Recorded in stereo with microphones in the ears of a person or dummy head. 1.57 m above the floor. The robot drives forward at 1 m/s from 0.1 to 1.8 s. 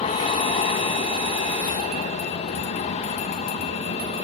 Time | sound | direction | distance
0.0 | an aircraft | 35° left (ahead or behind) | ?